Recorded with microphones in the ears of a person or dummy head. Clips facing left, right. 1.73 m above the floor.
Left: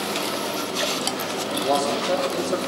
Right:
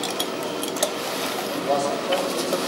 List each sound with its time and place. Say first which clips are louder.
1.6 s a man speaking: left 1 dB; 45° left (ahead or behind), 4.5 m